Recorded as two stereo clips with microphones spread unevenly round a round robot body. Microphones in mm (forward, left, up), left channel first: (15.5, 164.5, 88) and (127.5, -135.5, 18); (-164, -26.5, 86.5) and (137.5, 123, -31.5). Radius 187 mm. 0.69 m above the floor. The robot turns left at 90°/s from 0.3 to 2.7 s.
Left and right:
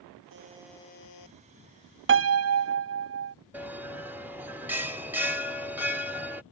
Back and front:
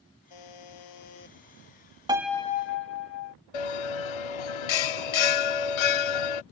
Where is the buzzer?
125° right; by 1.4 s 140° left.